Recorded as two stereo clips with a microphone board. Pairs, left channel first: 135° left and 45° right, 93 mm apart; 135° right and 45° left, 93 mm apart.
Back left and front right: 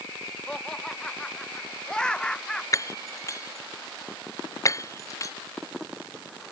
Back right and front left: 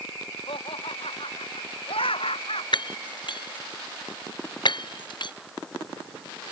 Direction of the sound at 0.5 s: 140° right.